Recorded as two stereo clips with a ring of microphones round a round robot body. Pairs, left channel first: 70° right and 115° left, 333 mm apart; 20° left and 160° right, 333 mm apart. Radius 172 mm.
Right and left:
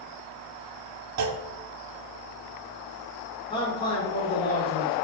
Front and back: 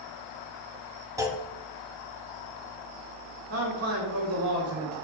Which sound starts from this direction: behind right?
A man speaking, at 3.5 s.